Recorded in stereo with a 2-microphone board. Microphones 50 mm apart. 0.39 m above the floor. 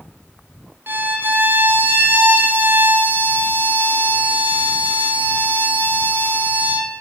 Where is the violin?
50° right (ahead or behind), 0.8 m.